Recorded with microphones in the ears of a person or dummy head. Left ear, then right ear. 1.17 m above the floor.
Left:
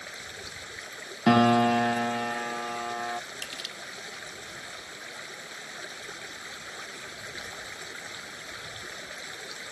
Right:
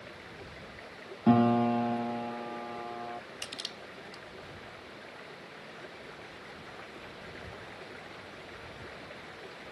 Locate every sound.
0.0 s running water: 85° left
1.3 s a piano: 65° left (ahead or behind)
3.4 s crushing: 20° left (ahead or behind)